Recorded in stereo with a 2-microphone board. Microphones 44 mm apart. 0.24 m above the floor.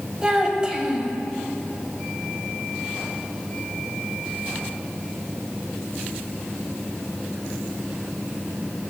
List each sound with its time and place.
0.2 s a child speaking: 20° right (ahead or behind), 0.9 m